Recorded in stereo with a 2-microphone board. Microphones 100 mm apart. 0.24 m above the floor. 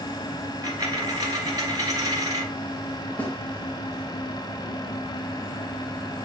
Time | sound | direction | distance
0.6 | a dropped coin | 35° right (ahead or behind) | 1.6 m
3.2 | a snare drum | 15° left (ahead or behind) | 1.9 m